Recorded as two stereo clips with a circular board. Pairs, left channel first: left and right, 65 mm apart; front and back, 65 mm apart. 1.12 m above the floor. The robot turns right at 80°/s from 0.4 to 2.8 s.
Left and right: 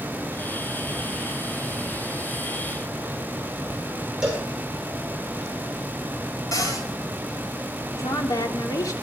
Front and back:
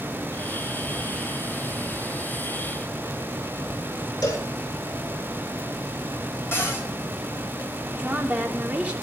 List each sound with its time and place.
4.2 s a cowbell: 10° right, 6.5 m
6.5 s a cupboard door: 55° left, 7.5 m
7.9 s a woman speaking: 110° left, 3 m